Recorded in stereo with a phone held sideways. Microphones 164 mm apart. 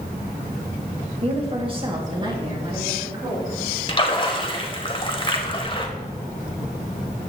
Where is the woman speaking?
40° right (ahead or behind), 1.6 m; by 3.6 s 25° right (ahead or behind), 5 m.